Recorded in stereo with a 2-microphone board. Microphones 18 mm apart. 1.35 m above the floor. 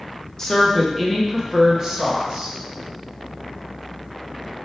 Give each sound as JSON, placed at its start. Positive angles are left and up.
{"t": 0.4, "sound": "a woman speaking", "side_deg": 15, "distance_m": 1.0}